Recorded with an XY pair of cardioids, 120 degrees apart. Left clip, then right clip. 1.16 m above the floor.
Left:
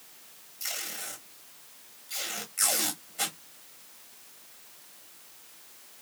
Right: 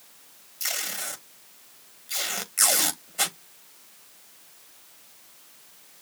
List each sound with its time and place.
0.6 s tape being pulled: 50° right, 1.7 m